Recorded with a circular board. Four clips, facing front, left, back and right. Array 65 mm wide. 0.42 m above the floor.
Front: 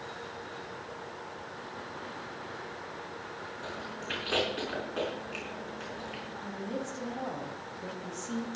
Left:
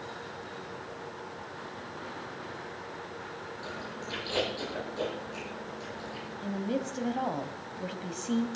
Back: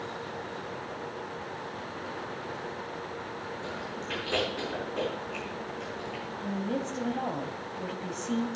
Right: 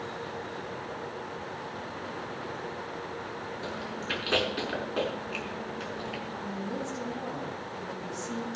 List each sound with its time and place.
3.6 s chewing: 80° right, 6 m
6.4 s a woman speaking: 115° left, 2.0 m